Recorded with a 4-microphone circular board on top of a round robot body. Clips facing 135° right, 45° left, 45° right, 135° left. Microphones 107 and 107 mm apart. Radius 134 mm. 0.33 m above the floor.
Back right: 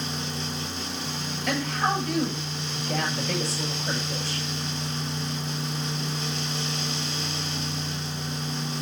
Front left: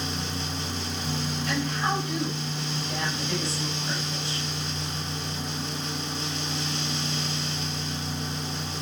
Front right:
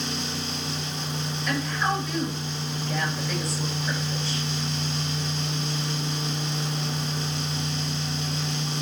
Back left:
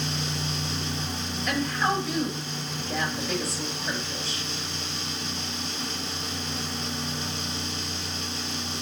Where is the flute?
I don't hear a flute.